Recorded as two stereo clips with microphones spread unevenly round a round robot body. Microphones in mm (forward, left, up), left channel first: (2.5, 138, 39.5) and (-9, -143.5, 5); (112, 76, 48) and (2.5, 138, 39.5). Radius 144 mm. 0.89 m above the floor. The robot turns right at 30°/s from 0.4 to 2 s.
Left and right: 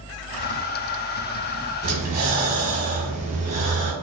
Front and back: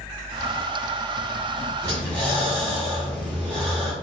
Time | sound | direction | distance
1.8 | breathing | 150° right | 0.8 m